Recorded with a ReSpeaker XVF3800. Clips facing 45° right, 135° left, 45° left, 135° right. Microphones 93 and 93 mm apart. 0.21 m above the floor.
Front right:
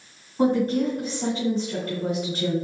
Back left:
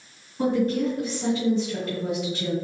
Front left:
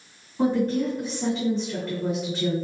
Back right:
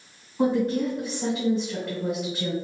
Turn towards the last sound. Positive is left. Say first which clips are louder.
# front right 2 dB, even
turn(degrees=-50)